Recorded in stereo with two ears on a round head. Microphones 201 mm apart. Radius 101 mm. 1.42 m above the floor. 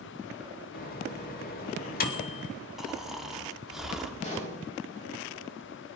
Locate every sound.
0.7 s a microwave: 45° left (ahead or behind), 2 m
2.8 s snoring: centre (ahead or behind), 1.7 m
4.2 s a pop: 35° left (ahead or behind), 7.5 m